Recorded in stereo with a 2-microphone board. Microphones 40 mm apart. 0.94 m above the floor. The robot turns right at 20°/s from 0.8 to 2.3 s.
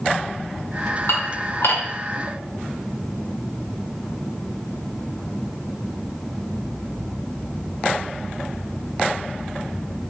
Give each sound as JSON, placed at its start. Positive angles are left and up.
{"t": 1.1, "sound": "dishes clattering", "side_deg": 85, "distance_m": 1.9}